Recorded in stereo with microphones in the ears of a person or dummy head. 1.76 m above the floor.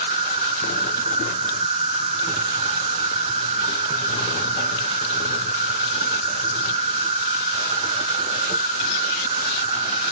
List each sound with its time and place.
0.0 s an insect: 30° right (ahead or behind), 0.8 m